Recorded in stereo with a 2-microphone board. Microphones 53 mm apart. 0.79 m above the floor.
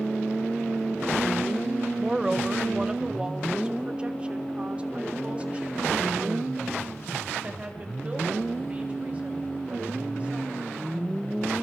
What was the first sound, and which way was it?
A woman speaking, 10° right (ahead or behind).